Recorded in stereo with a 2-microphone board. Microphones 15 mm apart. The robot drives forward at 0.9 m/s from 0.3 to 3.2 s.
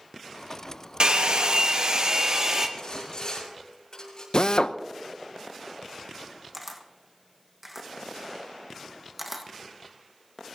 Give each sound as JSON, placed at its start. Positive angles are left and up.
{"t": 1.0, "sound": "a hair dryer", "side_deg": -60, "distance_m": 1.1}
{"t": 2.8, "sound": "sawing", "side_deg": 40, "distance_m": 7.0}
{"t": 4.3, "sound": "a drill", "side_deg": 55, "distance_m": 0.7}
{"t": 6.5, "sound": "a camera shutter", "side_deg": -15, "distance_m": 1.5}